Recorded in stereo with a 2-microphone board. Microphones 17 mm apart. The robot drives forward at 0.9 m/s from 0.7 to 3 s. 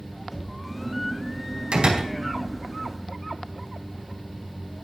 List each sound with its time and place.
0.3 s knocking: 5° right (ahead or behind), 5.5 m
1.7 s a door slam: 85° right, 4 m